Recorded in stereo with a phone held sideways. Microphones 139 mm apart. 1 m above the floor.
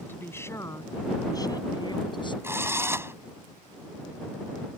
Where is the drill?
20° right (ahead or behind).